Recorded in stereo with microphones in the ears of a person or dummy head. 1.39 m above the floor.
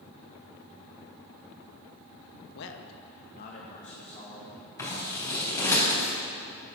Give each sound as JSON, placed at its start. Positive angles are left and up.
{"t": 2.5, "sound": "a man speaking", "side_deg": 60, "distance_m": 1.0}
{"t": 4.8, "sound": "scissors", "side_deg": 15, "distance_m": 3.5}